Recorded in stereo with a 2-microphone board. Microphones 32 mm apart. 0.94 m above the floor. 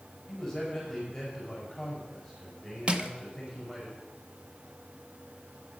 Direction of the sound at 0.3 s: Centre (ahead or behind).